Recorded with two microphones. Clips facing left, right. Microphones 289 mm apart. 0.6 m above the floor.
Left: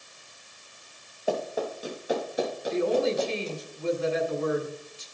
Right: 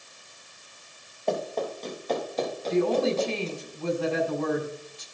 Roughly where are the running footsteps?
Centre.